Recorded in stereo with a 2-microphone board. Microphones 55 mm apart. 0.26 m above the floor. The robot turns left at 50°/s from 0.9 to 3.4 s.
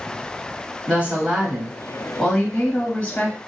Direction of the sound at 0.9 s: 125° right.